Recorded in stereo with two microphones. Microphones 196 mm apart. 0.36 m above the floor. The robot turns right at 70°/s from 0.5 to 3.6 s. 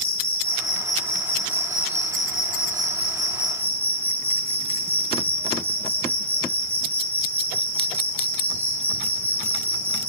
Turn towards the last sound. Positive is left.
turn(degrees=-10)